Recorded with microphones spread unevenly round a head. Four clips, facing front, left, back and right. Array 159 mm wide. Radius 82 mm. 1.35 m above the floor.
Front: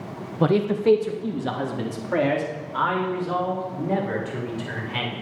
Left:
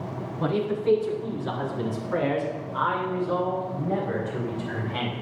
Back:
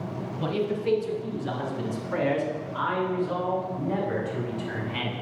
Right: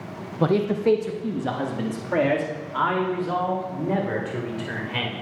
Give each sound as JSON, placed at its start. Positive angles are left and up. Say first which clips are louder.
{"t": 0.4, "sound": "a man speaking", "louder": "right 4 dB, front 8 dB", "azimuth_deg": -35, "distance_m": 1.6}